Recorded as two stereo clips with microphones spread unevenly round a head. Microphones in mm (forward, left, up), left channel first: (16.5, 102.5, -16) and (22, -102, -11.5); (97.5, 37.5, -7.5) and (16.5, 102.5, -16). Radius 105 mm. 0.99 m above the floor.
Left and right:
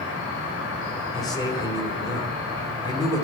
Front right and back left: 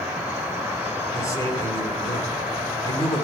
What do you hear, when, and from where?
0.0 s an insect: 65° left, 4 m
1.1 s a man speaking: 20° left, 3 m